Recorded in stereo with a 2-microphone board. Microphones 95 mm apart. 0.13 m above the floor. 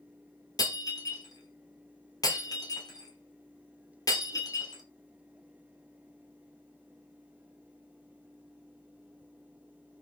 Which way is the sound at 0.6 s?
40° left (ahead or behind).